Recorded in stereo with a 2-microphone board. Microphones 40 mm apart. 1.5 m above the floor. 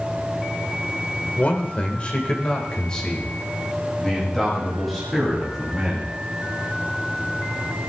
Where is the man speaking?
40° left (ahead or behind), 1.6 m; by 6.1 s centre (ahead or behind), 3.5 m.